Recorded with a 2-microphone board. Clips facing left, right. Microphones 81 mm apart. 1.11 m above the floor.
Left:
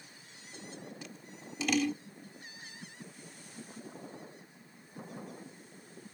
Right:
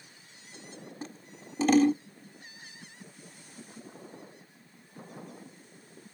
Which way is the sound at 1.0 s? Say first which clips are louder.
Right 4 dB; 40° right (ahead or behind).